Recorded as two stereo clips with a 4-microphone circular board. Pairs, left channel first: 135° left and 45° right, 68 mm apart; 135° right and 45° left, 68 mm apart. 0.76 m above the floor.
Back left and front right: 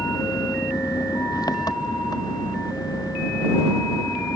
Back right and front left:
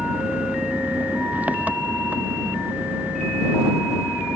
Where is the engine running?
115° left.